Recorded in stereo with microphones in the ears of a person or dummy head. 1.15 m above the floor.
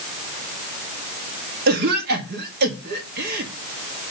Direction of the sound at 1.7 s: 50° right (ahead or behind).